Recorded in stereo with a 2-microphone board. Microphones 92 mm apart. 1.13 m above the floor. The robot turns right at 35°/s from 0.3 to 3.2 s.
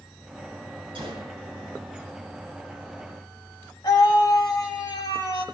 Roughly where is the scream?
Left.